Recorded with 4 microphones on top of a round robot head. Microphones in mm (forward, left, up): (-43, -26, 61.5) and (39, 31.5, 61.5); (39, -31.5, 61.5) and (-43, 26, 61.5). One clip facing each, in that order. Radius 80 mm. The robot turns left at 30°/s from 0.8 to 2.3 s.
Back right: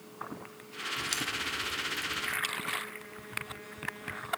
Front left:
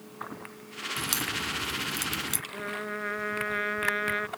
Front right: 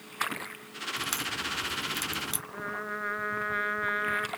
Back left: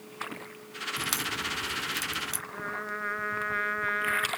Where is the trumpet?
50° left.